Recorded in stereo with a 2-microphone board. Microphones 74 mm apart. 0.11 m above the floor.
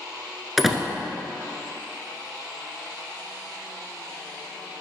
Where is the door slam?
Centre (ahead or behind), 0.8 m.